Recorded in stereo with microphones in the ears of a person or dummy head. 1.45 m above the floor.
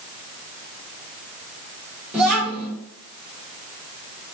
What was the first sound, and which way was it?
A child speaking, centre (ahead or behind).